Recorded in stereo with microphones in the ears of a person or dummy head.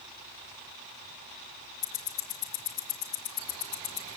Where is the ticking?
15° left (ahead or behind), 3 m.